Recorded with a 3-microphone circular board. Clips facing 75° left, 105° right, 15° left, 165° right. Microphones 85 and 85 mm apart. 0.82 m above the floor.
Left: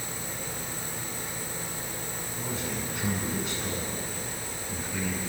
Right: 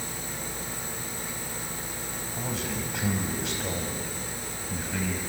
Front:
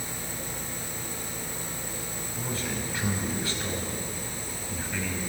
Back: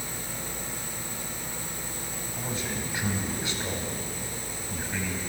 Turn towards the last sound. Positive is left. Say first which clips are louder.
# right 1 dB, front 1 dB
turn(degrees=-95)